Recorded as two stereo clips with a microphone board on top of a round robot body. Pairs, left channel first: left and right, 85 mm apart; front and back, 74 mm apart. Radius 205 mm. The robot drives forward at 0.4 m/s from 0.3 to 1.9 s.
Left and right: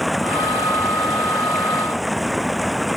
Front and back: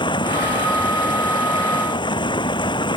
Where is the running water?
Straight ahead.